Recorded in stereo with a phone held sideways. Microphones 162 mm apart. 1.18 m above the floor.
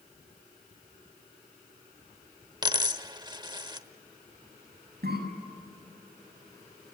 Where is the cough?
85° right, 7.5 m.